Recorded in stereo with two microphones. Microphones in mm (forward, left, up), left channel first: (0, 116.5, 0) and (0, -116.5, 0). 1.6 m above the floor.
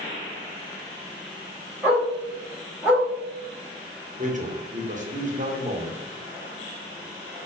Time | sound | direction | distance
1.8 | a dog barking | 10° right (ahead or behind) | 1.3 m
4.2 | a man speaking | 35° right (ahead or behind) | 0.7 m